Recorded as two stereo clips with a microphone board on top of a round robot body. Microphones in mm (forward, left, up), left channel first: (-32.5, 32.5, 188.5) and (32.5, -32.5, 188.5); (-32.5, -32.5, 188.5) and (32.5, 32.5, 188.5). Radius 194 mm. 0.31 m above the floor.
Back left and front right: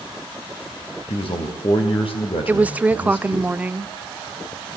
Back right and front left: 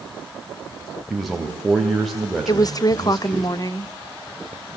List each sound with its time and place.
1.1 s a man speaking: 135° left, 3.5 m
2.5 s a woman speaking: 115° right, 1.2 m